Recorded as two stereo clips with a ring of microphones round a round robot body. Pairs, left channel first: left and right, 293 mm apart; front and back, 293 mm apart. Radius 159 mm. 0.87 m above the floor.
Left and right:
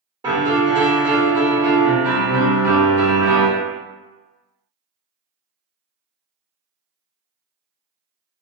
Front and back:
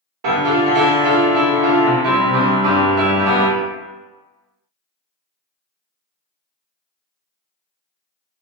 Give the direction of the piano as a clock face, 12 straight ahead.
6 o'clock.